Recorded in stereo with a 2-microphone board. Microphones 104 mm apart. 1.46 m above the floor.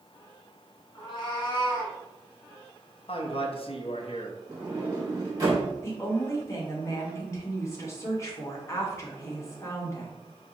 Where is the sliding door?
30° right (ahead or behind), 2 m.